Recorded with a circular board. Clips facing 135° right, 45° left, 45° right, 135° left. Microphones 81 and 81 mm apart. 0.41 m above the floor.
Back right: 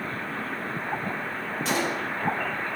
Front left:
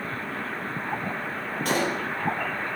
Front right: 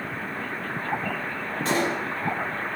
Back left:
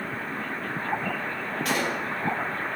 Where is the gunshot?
10° left, 4 m.